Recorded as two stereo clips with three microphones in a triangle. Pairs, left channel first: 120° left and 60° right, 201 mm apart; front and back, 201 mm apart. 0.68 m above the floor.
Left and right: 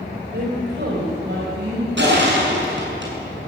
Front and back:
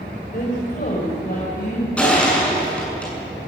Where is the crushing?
85° right, 7 m.